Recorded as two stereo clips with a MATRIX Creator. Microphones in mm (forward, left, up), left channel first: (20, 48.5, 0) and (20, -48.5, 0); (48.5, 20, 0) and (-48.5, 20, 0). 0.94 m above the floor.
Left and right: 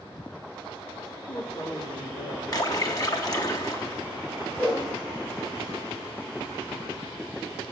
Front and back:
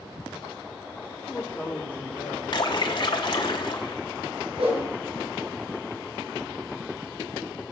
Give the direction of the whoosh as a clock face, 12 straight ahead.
7 o'clock.